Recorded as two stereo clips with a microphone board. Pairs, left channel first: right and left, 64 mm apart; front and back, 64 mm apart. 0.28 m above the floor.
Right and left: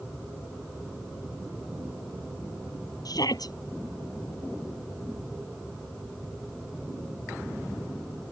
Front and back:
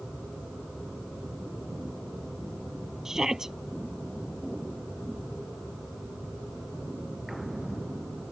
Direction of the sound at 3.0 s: 95° right.